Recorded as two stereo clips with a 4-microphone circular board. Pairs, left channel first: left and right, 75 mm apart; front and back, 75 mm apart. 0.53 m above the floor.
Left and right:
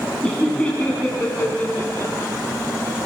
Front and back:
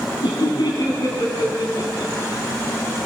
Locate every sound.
0.2 s laughter: 10° left, 4.5 m; by 2.3 s 35° left, 4.5 m